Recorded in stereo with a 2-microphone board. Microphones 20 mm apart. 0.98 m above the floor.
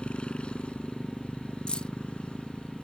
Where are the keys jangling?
55° left (ahead or behind).